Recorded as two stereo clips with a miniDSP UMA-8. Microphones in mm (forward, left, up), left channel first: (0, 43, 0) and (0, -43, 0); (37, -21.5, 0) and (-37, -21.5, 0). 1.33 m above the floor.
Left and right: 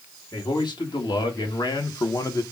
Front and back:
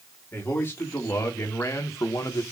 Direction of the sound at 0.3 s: 60° left.